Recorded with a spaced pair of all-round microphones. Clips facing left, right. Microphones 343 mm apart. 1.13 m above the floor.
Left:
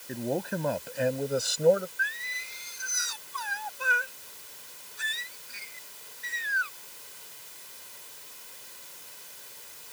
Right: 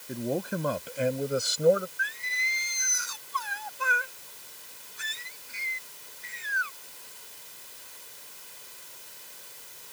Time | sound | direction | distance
0.1 | a man speaking | 5° right (ahead or behind) | ?
2.0 | singing | centre (ahead or behind) | ?